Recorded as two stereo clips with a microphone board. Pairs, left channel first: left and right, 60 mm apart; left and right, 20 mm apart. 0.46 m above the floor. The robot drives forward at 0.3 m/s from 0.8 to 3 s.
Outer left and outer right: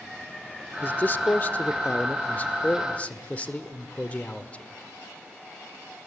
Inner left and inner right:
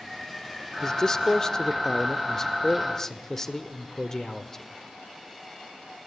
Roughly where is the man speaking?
Left.